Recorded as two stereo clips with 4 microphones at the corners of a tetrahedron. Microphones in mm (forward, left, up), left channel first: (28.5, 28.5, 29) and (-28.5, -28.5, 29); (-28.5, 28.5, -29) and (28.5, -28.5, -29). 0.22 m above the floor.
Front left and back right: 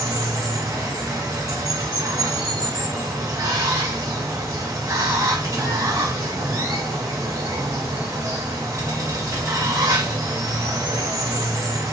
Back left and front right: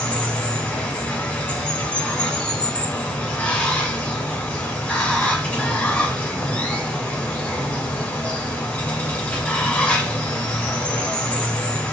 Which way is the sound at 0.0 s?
160° right.